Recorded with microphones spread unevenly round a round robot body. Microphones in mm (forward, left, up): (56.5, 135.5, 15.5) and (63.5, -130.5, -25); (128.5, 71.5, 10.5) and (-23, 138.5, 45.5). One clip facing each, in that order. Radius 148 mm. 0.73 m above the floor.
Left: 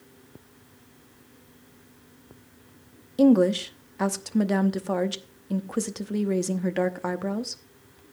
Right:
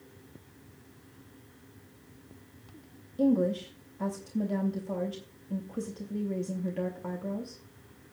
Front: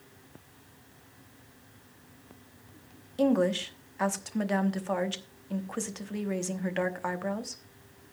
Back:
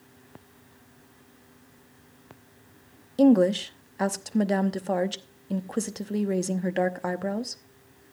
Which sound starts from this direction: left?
A woman speaking, at 3.2 s.